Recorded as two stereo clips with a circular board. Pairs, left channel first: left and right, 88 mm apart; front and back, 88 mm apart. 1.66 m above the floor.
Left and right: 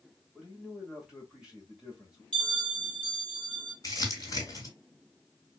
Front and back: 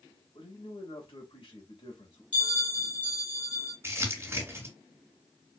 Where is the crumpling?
125° left, 2.5 m.